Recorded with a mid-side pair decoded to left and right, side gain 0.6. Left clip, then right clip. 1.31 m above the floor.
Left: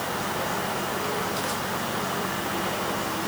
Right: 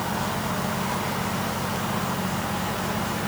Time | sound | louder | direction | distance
0.0 | a fan | even | 40° right | ?